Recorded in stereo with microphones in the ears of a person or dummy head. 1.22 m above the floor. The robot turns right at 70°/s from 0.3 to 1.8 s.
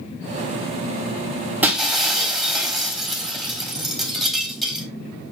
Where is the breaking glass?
10° right (ahead or behind), 3 m; by 4.9 s centre (ahead or behind), 3 m.